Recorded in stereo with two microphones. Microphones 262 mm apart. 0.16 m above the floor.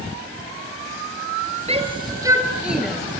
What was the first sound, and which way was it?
A shout, 25° right (ahead or behind).